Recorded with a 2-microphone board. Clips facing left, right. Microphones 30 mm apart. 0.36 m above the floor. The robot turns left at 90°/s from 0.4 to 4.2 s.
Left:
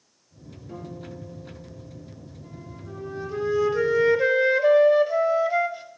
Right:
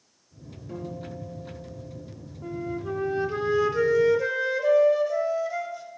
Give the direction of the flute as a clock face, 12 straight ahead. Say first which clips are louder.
Right 13 dB; 2 o'clock.